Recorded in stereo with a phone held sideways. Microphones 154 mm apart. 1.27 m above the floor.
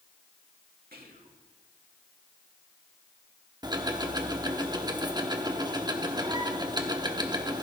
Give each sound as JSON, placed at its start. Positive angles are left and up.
{"t": 0.9, "sound": "whispering", "side_deg": -90, "distance_m": 2.5}
{"t": 3.6, "sound": "ticking", "side_deg": -30, "distance_m": 1.0}